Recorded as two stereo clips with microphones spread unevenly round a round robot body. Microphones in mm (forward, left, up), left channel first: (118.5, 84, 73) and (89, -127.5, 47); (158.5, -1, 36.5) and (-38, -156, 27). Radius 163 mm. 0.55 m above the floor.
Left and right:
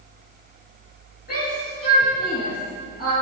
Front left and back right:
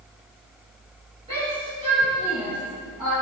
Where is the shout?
145° left, 8 m; by 3.1 s 140° left, 9 m.